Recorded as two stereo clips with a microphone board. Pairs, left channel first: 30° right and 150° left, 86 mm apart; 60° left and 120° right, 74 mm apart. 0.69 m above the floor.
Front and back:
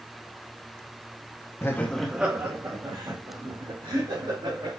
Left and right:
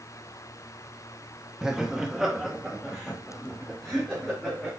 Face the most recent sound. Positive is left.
turn(degrees=150)